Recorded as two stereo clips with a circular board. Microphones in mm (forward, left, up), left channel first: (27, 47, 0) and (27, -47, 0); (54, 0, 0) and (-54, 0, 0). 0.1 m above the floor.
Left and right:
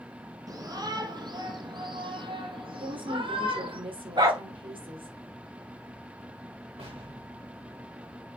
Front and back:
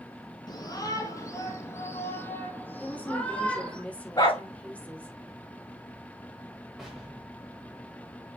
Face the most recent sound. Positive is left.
turn(degrees=-95)